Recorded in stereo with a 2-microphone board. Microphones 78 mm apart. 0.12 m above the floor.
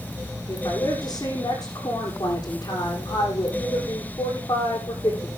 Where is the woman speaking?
55° left (ahead or behind), 8 m.